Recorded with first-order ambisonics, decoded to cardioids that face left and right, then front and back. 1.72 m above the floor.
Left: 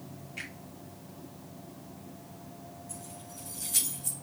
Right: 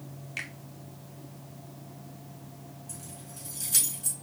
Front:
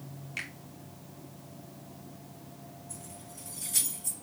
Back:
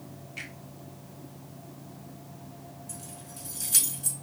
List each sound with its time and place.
0.4 s a finger snap: 55° right, 2 m
2.9 s keys jangling: 150° right, 2.5 m